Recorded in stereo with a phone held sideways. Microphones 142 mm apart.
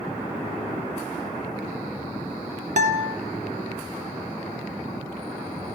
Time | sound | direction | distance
2.8 | a guitar | 60° right (ahead or behind) | 1.9 m